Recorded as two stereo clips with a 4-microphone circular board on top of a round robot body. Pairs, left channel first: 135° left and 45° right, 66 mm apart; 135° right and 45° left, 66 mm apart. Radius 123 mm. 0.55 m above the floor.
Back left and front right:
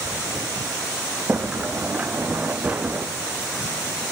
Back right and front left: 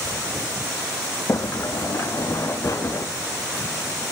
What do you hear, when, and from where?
1.3 s a sliding door: 105° right, 0.8 m